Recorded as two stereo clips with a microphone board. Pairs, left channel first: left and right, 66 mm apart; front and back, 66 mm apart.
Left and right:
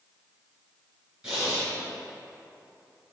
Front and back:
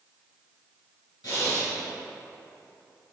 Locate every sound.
1.2 s breathing: 10° right, 1.6 m